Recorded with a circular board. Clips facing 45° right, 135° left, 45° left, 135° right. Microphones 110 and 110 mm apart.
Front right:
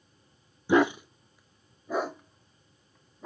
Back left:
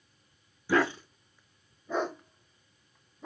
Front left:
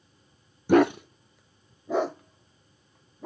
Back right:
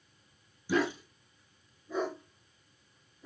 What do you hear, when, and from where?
0.7 s a dog barking: 25° left, 0.5 m; by 3.3 s 40° left, 2.5 m